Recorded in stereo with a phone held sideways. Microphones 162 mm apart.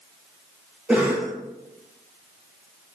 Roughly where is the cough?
Centre.